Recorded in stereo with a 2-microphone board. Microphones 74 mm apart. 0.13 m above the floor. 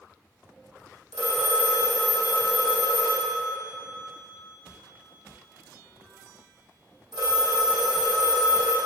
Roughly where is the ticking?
I don't hear ticking.